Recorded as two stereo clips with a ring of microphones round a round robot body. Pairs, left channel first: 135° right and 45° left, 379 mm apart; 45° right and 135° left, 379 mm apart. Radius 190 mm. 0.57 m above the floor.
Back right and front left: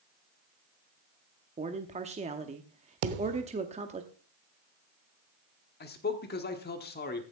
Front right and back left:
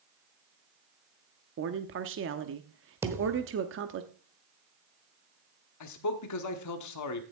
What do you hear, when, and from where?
1.6 s a man speaking: 105° left, 0.8 m
3.0 s a thud: 50° left, 0.9 m
5.8 s a man speaking: 75° right, 1.1 m